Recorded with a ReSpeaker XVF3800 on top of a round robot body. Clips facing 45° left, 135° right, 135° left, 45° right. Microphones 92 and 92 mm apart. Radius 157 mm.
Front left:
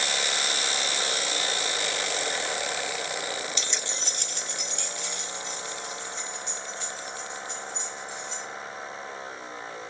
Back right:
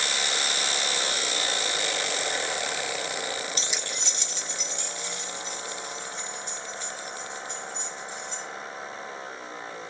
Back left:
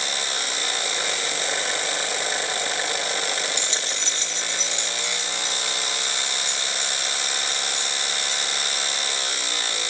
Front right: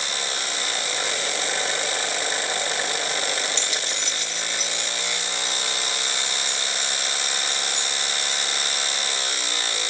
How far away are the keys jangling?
About 0.6 m.